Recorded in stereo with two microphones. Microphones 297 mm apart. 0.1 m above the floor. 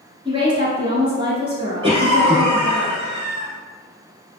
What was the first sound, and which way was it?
A woman speaking, 15° right (ahead or behind).